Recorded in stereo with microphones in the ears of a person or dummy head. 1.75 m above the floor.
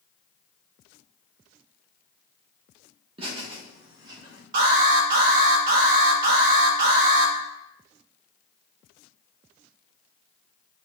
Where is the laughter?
35° right (ahead or behind), 2 m; by 4.4 s 30° right (ahead or behind), 3 m.